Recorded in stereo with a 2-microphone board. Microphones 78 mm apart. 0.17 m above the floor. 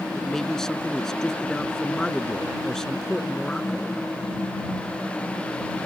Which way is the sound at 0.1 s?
5° left (ahead or behind).